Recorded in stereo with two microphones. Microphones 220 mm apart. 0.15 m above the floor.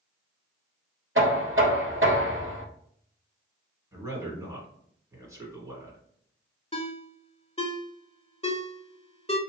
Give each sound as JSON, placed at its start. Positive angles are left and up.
{"t": 1.1, "sound": "knocking", "side_deg": -65, "distance_m": 1.8}
{"t": 3.9, "sound": "a man speaking", "side_deg": -15, "distance_m": 1.8}
{"t": 6.7, "sound": "a ringtone", "side_deg": 30, "distance_m": 0.8}